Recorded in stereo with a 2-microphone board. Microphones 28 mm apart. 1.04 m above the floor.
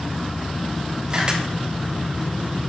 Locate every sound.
1.1 s a camera shutter: 30° right (ahead or behind), 1.9 m